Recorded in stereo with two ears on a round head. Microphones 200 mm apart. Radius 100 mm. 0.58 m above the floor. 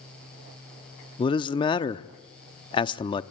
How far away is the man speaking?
About 0.6 m.